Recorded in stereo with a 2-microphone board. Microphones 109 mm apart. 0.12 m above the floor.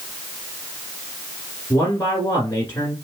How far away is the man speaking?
About 1.5 m.